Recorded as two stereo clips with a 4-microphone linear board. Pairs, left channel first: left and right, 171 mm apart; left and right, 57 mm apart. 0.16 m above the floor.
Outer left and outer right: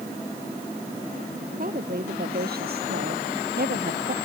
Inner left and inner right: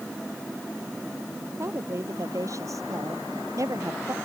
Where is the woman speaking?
55° right (ahead or behind); by 4.2 s 60° right (ahead or behind).